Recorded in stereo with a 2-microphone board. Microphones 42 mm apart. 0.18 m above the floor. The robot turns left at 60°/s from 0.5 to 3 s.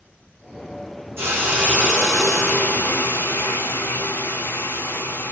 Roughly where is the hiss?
Behind right.